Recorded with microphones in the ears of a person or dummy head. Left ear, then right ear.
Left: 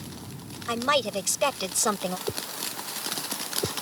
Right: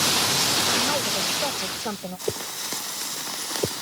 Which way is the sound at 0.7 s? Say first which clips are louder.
Right 2 dB; 65° left (ahead or behind).